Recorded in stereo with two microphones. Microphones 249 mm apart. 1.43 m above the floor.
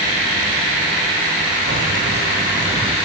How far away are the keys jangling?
About 0.7 m.